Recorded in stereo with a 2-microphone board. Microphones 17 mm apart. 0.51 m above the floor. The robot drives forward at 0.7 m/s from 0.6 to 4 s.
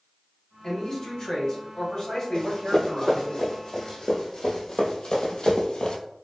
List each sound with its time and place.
0.6 s a man speaking: 35° left (ahead or behind), 1.9 m; by 3.3 s 40° left (ahead or behind), 1.8 m
2.3 s running footsteps: 50° left (ahead or behind), 1.3 m; by 6.0 s 65° left (ahead or behind), 0.9 m